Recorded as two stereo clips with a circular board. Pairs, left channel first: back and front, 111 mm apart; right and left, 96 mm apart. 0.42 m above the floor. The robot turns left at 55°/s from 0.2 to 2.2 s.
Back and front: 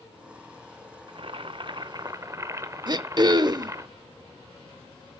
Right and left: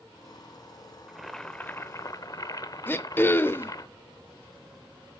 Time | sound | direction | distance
1.1 | boiling | 10° left | 0.8 m
2.9 | throat clearing | 30° right | 0.6 m